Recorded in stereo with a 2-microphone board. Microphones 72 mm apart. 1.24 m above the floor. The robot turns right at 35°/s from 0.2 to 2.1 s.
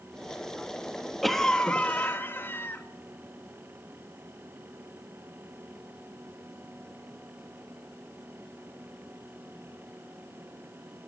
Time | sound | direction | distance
1.2 | a cough | straight ahead | 1.5 m